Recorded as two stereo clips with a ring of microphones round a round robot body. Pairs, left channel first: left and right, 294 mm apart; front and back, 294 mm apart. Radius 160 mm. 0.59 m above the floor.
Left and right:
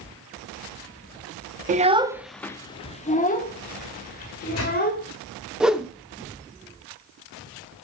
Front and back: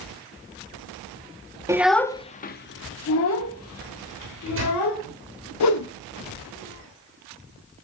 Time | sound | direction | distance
1.7 | a child speaking | 110° right | 0.6 m
4.2 | a microwave | 135° left | 2.5 m
5.6 | a whoosh | 5° right | 0.9 m